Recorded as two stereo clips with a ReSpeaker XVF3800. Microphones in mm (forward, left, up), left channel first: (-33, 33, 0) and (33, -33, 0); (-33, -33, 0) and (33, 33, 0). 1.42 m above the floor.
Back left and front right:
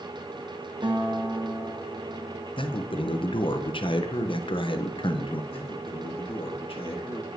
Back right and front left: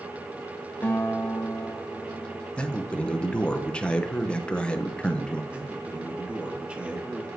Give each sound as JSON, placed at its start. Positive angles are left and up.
{"t": 0.8, "sound": "a guitar", "azimuth_deg": -65, "distance_m": 1.1}
{"t": 2.6, "sound": "a man speaking", "azimuth_deg": 145, "distance_m": 0.6}
{"t": 5.5, "sound": "a man speaking", "azimuth_deg": 120, "distance_m": 1.1}